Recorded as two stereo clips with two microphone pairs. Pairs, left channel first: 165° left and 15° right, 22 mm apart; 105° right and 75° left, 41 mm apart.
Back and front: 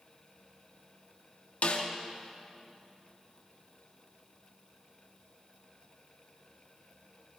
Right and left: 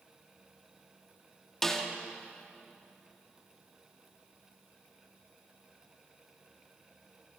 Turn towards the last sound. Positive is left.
turn(degrees=180)